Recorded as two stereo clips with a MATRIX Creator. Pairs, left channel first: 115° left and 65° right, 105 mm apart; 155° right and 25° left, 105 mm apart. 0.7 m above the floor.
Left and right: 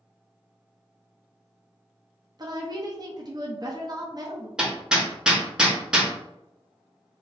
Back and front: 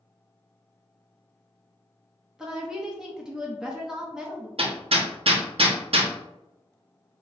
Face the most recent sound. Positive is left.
turn(degrees=15)